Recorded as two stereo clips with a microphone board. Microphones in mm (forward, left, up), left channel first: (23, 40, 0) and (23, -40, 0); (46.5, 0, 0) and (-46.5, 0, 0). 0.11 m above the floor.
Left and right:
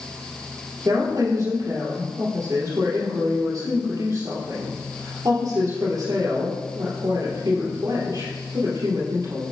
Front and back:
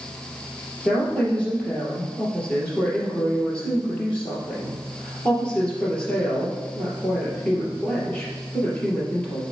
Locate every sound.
0.8 s a woman speaking: 75° right, 2.5 m